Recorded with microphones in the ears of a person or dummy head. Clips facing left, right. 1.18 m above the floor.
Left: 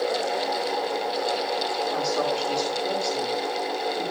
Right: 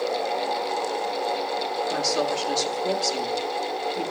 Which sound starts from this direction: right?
A woman speaking, at 1.9 s.